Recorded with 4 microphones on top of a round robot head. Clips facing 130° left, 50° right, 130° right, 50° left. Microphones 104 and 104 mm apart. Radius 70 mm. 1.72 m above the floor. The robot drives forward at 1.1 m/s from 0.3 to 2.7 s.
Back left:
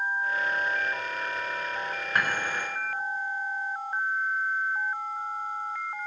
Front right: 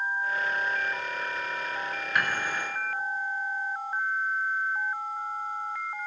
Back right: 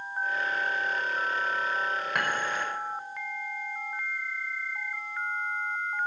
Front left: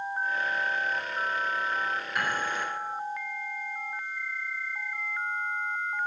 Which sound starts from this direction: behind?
Dishes clattering, at 2.1 s.